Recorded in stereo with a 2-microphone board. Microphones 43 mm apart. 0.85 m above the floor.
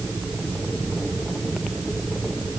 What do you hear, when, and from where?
Only background noise.